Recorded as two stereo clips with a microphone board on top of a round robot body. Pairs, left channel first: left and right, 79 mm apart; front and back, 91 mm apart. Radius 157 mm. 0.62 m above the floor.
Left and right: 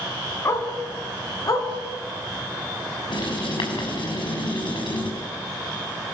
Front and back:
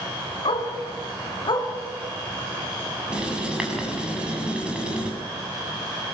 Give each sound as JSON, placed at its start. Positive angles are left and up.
{"t": 0.5, "sound": "a dog barking", "azimuth_deg": 30, "distance_m": 3.0}
{"t": 3.1, "sound": "writing", "azimuth_deg": 100, "distance_m": 7.5}